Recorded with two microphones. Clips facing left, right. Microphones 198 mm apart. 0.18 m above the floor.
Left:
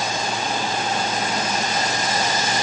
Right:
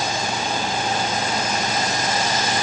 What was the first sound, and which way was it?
Only background noise.